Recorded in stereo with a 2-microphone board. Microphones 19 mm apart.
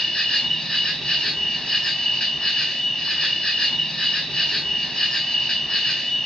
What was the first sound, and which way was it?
An insect, 45° left (ahead or behind).